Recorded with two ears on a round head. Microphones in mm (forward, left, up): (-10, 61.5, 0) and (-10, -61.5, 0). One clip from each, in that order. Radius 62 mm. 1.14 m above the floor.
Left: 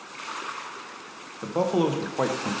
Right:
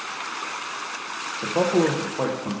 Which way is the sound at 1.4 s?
Centre (ahead or behind).